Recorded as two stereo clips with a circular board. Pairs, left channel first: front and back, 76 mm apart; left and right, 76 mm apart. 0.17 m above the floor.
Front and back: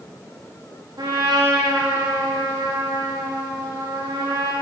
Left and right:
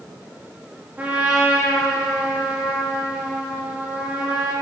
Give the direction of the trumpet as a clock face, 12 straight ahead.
5 o'clock.